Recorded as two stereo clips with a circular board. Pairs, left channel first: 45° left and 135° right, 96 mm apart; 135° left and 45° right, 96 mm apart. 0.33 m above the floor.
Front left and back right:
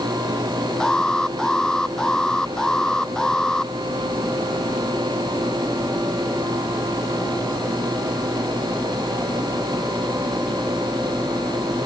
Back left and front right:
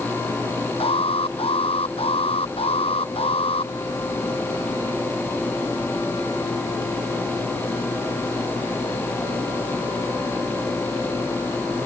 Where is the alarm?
130° left.